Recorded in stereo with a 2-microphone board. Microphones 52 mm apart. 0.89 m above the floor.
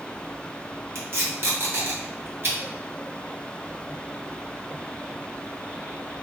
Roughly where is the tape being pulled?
Right.